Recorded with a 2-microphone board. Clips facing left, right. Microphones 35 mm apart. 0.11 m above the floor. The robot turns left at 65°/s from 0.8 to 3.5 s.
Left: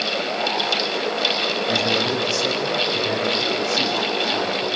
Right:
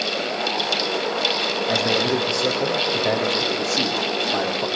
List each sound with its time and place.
1.7 s a man speaking: 5° left, 5.5 m; by 4.7 s 115° right, 5.5 m